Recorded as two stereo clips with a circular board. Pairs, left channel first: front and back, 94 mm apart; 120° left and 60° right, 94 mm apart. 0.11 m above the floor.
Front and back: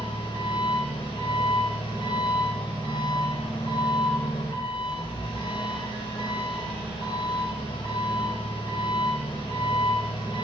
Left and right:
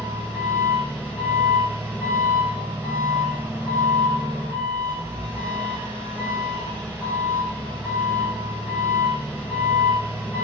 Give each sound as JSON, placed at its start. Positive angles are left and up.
{"t": 0.0, "sound": "an engine running", "azimuth_deg": 10, "distance_m": 2.0}